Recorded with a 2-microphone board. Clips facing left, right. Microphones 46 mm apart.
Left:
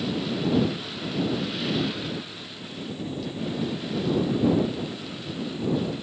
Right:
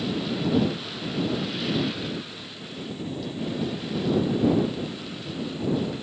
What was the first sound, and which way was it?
Only background noise.